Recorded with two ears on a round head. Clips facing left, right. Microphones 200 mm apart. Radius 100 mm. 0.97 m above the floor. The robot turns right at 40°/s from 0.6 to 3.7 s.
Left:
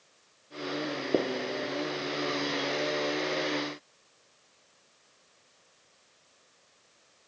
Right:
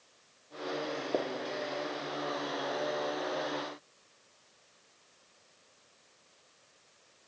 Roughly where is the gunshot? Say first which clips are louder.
Left 6 dB; left.